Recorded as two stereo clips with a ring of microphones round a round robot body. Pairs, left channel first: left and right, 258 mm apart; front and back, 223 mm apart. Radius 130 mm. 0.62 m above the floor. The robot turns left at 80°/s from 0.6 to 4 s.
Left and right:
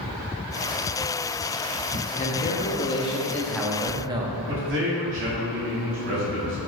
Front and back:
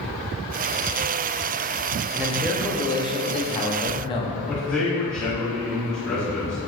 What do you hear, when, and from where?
2.1 s a man speaking: 110° left, 0.5 m; by 4.4 s 35° right, 0.5 m
4.5 s a man speaking: 85° right, 1.4 m